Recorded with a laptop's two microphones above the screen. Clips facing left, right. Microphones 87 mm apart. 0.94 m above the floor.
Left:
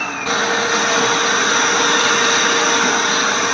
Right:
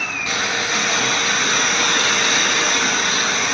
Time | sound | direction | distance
0.0 | a machine running | 40° left (ahead or behind) | 1.7 m